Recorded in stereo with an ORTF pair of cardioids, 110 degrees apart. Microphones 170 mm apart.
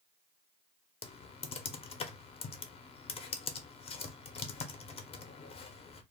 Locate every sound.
1.0 s typing on a keyboard: 35° left, 0.6 m